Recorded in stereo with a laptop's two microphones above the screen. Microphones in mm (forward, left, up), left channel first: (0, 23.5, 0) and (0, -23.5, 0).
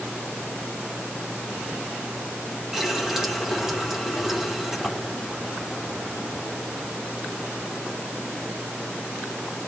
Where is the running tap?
10° right (ahead or behind), 3 m.